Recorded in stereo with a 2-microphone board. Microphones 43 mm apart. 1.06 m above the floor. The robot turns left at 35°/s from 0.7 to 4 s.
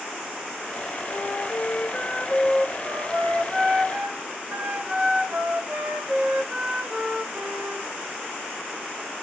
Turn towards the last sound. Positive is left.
turn(degrees=-45)